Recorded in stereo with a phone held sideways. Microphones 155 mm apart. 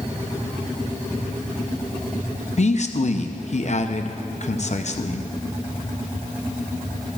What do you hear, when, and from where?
2.6 s a man speaking: 50° left (ahead or behind), 0.7 m